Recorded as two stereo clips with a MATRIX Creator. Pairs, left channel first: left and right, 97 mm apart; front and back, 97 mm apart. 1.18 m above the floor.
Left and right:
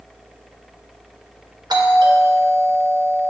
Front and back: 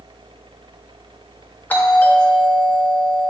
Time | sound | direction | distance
1.7 | a doorbell | 65° right | 1.0 m